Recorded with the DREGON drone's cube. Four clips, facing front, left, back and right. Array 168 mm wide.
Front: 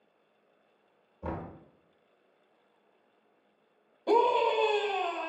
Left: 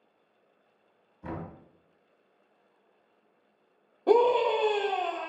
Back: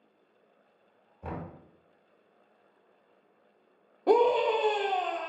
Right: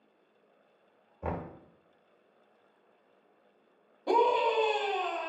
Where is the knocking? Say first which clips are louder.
Right 2 dB, front 2 dB; 80° right, 1.0 m.